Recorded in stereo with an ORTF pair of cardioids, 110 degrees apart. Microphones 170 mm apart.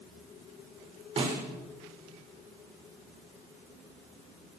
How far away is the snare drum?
About 6 m.